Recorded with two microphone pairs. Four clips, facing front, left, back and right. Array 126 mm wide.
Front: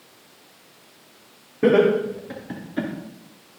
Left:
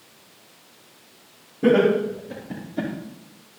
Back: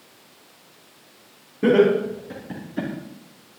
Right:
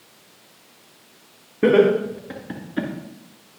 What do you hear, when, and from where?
1.6 s laughter: 60° right, 4 m